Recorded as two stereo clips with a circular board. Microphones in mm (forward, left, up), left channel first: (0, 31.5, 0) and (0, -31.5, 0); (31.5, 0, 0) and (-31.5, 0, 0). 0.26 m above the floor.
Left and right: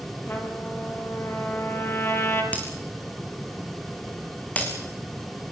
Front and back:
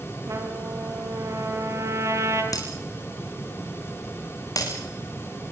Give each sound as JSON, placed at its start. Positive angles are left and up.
{"t": 0.3, "sound": "a trumpet", "azimuth_deg": 145, "distance_m": 4.5}
{"t": 2.5, "sound": "breaking glass", "azimuth_deg": 20, "distance_m": 7.0}